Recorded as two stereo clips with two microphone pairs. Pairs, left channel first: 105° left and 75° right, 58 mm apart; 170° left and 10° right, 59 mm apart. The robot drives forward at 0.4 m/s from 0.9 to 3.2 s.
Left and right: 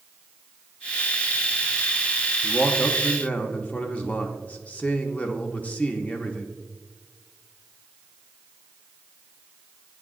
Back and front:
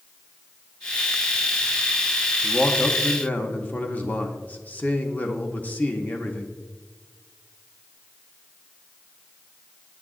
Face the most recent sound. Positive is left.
turn(degrees=145)